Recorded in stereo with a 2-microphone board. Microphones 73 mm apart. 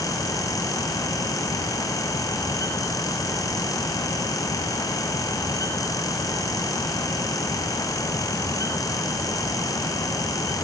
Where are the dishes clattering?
No dishes clattering in this recording.